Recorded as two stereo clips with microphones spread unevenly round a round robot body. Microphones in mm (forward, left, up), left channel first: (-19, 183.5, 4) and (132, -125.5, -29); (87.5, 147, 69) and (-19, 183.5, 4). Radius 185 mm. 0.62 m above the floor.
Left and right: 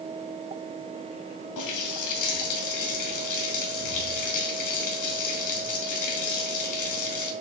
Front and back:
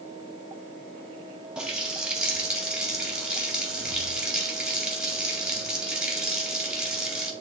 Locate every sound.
1.6 s a running tap: 80° left, 2.5 m